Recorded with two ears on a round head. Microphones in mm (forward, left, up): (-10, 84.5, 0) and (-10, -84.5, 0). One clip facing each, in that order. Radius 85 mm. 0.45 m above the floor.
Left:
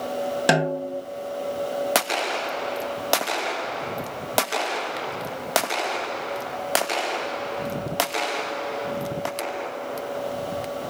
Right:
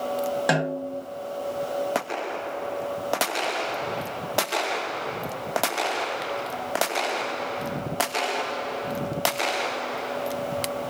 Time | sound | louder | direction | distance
0.5 | a snare drum | left 3 dB | 35° left (ahead or behind) | 1.3 m